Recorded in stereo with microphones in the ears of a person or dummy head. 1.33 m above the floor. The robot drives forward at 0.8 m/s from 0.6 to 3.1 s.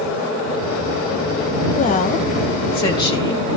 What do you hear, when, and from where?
1.8 s a woman speaking: 40° left (ahead or behind), 1.4 m; by 3.6 s 25° left (ahead or behind), 2.5 m